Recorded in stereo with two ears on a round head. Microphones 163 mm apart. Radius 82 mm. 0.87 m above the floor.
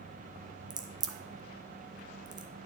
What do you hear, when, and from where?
0.7 s a crack: 20° right (ahead or behind), 0.8 m